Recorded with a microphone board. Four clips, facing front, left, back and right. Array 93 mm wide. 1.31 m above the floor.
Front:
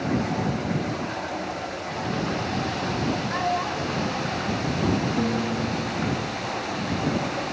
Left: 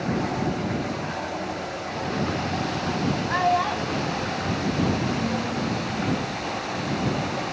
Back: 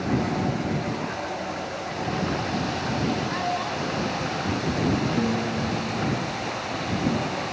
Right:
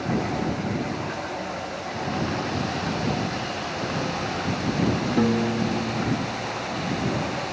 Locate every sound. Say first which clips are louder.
3.3 s a child speaking: left 8 dB, front 1 dB; 80° left; by 5.6 s 90° left
5.2 s a piano: right 4 dB, even; 85° right